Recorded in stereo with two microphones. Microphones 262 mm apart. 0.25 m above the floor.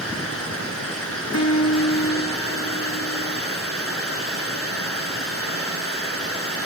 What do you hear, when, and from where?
0.0 s running water: 55° left (ahead or behind), 3 m
1.3 s a guitar: 75° left (ahead or behind), 1.7 m